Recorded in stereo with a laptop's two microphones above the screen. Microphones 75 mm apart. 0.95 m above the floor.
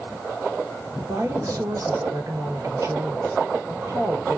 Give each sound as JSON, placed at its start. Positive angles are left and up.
{"t": 1.0, "sound": "a woman speaking", "side_deg": -45, "distance_m": 1.1}